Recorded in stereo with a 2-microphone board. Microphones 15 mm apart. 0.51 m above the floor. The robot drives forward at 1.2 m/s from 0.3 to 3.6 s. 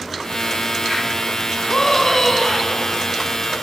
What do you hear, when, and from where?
1.7 s a scream: 30° left (ahead or behind), 4 m; by 3.0 s 25° left (ahead or behind), 5.5 m